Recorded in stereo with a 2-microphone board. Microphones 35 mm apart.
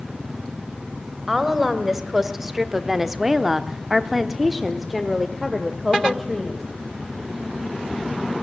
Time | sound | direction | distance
1.3 | a woman speaking | 10° right (ahead or behind) | 2.5 m